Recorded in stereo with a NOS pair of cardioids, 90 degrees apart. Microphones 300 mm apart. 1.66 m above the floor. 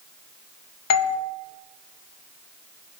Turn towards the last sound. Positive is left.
turn(degrees=55)